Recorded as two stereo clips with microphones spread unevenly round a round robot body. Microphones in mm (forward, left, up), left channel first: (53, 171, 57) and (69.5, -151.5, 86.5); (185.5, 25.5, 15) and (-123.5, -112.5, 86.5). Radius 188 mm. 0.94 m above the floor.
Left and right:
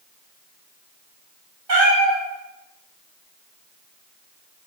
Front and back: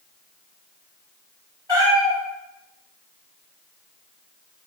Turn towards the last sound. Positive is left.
turn(degrees=-55)